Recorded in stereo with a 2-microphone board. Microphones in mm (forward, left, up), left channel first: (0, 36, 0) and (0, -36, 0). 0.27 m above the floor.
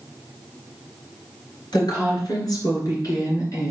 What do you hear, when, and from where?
1.7 s a woman speaking: 70° left (ahead or behind), 4 m; by 3.7 s 50° left (ahead or behind), 3 m